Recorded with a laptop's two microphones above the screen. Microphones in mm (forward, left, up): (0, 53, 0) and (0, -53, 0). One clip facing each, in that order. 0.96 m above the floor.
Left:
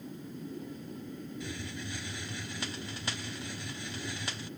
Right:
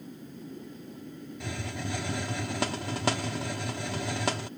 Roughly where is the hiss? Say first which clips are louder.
Right 4 dB; right.